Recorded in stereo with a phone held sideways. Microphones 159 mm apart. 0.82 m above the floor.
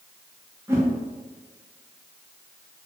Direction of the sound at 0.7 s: 15° right (ahead or behind).